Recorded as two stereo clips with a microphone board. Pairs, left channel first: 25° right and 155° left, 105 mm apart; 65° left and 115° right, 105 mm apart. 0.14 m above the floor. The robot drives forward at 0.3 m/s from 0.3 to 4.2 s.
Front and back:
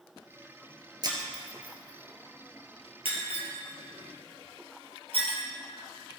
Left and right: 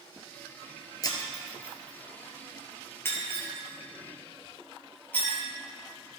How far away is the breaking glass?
About 1.7 m.